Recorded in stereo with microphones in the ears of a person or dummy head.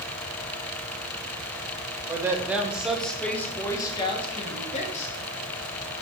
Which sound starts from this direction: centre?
A woman speaking, at 2.1 s.